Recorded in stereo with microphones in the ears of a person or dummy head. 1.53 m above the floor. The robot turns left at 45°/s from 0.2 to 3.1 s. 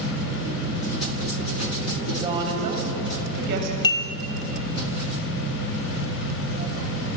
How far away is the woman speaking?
About 7 m.